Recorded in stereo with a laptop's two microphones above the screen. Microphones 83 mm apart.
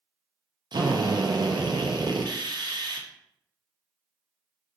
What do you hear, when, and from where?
0.7 s a drill: 60° right (ahead or behind), 0.6 m